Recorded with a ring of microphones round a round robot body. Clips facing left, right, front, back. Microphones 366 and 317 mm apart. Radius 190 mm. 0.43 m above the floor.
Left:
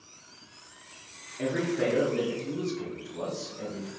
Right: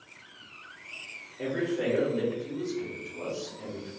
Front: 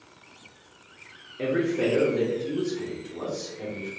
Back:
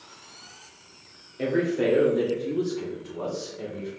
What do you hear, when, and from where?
1.4 s a man speaking: 75° left, 1.4 m; by 3.9 s 55° left, 2.5 m